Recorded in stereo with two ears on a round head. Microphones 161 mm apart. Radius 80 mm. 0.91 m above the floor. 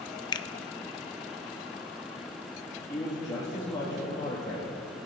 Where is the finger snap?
25° left (ahead or behind), 0.5 m.